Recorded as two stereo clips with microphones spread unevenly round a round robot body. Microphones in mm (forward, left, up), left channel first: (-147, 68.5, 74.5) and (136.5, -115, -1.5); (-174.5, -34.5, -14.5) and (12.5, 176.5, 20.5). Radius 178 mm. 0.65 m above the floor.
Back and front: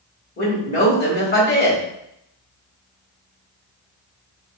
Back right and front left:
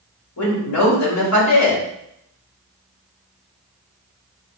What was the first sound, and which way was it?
A woman speaking, 150° right.